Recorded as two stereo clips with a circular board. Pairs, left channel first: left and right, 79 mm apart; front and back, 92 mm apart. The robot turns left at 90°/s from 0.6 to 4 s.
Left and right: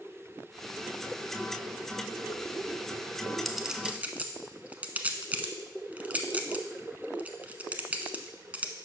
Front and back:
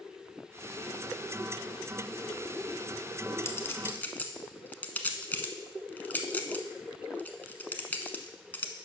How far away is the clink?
About 0.8 m.